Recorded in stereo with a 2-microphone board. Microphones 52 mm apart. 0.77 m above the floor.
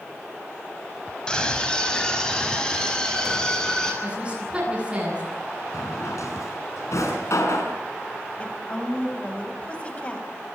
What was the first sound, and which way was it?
A scream, 15° left (ahead or behind).